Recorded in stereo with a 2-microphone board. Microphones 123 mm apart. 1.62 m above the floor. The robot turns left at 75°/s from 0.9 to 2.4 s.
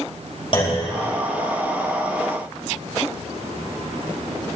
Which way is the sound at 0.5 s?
45° left (ahead or behind).